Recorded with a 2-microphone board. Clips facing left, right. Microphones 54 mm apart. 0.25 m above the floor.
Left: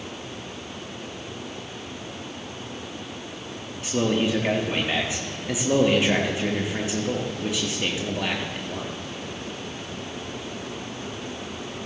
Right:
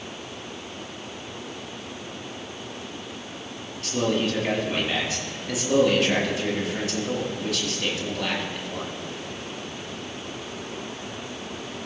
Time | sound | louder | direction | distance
3.8 | a man speaking | left 1 dB | 20° left (ahead or behind) | 4 m